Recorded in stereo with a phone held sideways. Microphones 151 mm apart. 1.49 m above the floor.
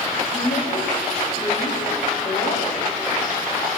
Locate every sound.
0.2 s a woman speaking: 70° left (ahead or behind), 3.5 m